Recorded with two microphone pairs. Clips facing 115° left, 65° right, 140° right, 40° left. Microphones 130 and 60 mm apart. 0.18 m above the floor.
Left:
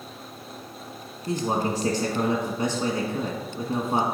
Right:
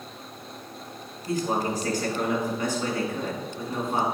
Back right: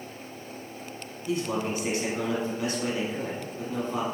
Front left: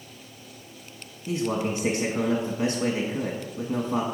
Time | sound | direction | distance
1.3 | a man speaking | 80° left | 1.2 m